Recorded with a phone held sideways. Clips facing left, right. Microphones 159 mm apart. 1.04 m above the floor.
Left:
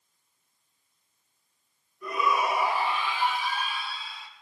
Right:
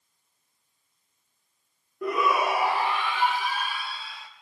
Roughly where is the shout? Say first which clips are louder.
Right 2 dB; right.